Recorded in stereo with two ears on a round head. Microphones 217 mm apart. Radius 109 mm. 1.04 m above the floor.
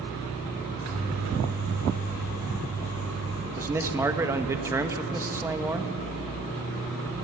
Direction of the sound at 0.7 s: 75° right (ahead or behind).